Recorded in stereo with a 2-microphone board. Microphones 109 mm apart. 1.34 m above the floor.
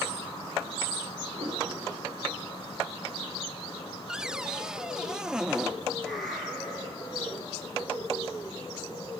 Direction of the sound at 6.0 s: Centre (ahead or behind).